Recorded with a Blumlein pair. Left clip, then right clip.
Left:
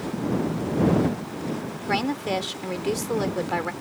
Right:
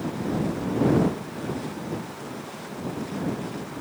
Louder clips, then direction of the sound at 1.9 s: Left 10 dB; 45° left.